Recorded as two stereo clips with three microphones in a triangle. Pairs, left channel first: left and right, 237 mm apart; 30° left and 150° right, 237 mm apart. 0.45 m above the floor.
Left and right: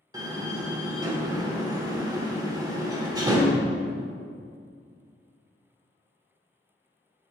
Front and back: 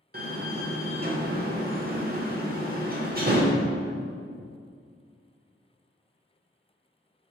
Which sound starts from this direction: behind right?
A door slam, at 0.1 s.